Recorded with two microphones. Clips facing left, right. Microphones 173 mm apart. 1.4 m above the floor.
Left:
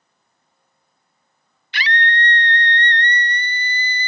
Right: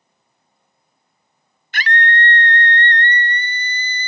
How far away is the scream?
About 0.6 m.